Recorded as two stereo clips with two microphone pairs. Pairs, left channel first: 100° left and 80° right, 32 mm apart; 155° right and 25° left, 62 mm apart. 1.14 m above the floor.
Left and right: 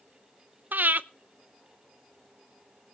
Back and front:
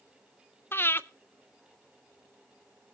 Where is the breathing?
105° right, 0.5 m.